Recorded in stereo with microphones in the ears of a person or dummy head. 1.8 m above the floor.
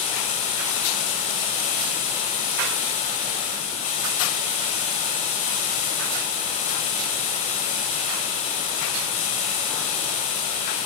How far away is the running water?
About 1.0 m.